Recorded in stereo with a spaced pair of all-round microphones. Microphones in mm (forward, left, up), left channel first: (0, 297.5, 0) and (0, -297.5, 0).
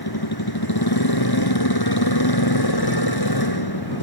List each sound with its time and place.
0.0 s a motorcycle: 40° left (ahead or behind)